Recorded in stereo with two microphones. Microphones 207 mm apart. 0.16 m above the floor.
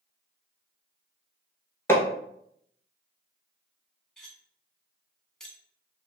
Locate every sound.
1.9 s hammering: 10° left (ahead or behind), 0.6 m
4.2 s cutlery clinking: 5° left (ahead or behind), 0.7 m